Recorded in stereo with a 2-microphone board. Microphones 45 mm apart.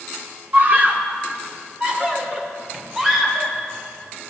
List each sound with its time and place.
0.5 s a scream: 45° right (ahead or behind), 3 m; by 3.5 s 5° right (ahead or behind), 5 m